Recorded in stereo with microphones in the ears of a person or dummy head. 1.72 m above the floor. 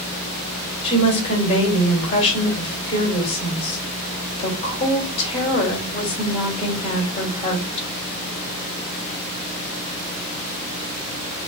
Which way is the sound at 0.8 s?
30° left (ahead or behind).